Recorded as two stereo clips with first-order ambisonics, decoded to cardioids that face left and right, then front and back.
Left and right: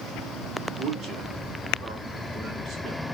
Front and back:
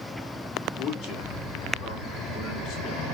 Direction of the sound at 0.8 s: 45° right.